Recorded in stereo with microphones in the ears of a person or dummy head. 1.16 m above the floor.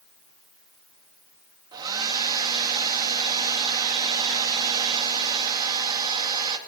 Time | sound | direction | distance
1.7 | a hair dryer | 25° right (ahead or behind) | 2 m